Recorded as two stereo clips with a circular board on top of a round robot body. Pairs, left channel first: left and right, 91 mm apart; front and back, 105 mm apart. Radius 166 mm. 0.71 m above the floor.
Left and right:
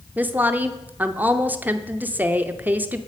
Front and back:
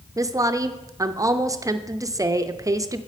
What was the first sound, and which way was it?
A woman speaking, 150° right.